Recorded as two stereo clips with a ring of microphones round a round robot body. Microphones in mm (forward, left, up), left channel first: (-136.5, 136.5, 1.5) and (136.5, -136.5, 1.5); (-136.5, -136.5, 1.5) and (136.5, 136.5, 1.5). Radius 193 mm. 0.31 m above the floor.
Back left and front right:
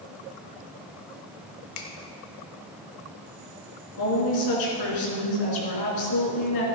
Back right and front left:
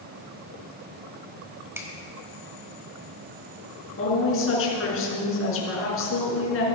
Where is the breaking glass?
I don't hear breaking glass.